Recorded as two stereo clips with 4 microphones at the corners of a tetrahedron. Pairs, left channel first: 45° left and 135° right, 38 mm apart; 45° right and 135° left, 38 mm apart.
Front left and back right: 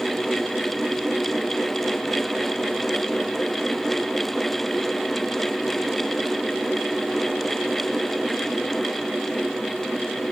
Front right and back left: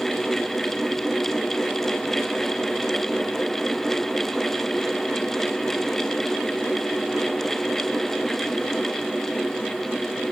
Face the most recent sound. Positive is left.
No sound to turn to.